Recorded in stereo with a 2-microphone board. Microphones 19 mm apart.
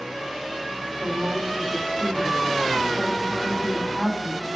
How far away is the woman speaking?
About 6.5 m.